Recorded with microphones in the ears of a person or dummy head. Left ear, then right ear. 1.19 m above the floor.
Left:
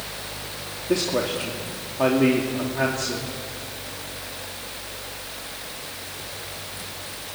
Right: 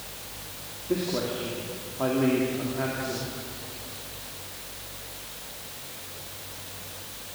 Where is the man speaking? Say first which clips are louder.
Left 5 dB; 80° left, 2.5 m.